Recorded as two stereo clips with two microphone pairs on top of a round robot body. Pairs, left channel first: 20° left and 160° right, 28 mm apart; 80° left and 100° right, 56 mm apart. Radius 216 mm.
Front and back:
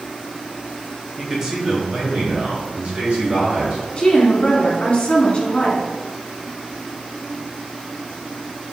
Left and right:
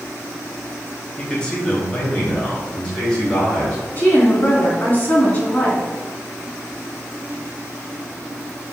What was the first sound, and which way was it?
A man speaking, 125° left.